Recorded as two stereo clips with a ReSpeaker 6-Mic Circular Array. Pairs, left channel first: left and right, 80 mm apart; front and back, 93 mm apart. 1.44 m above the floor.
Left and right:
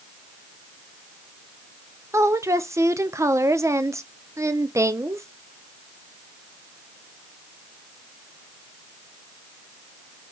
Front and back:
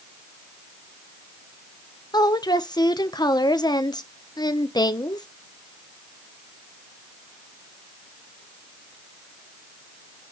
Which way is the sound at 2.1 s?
40° right.